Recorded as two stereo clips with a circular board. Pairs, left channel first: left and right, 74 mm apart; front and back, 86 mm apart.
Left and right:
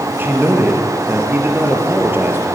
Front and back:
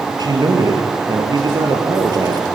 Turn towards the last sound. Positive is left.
turn(degrees=-150)